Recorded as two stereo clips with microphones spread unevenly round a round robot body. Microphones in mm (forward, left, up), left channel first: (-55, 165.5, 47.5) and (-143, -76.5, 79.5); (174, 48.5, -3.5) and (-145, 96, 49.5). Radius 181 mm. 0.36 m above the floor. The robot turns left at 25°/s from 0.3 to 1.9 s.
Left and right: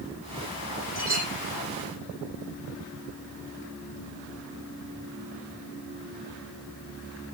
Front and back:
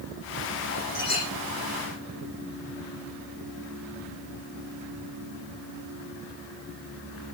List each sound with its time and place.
0.9 s a clink: 55° right, 9.5 m; by 1.3 s 65° right, 9.5 m